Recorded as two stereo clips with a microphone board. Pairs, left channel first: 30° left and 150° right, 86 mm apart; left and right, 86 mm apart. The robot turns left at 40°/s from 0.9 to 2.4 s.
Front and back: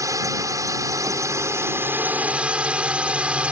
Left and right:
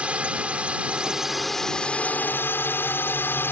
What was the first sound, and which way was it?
A drone, 160° right.